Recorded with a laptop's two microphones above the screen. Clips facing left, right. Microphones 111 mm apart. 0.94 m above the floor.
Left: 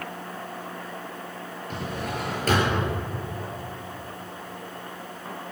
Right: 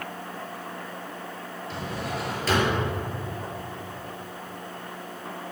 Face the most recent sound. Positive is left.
turn(degrees=50)  # may be behind; listen again after turning